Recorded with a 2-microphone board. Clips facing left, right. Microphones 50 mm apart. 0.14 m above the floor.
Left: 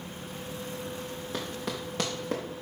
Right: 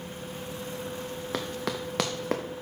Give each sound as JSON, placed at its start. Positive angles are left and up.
{"t": 1.3, "sound": "running footsteps", "side_deg": -80, "distance_m": 1.1}